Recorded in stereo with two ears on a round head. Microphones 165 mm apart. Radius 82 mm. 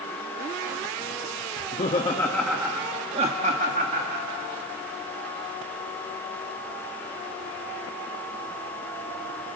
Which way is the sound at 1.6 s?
45° left (ahead or behind).